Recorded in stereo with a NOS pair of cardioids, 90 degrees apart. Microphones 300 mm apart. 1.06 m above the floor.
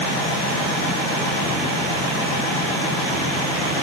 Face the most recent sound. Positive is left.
No sound to turn to.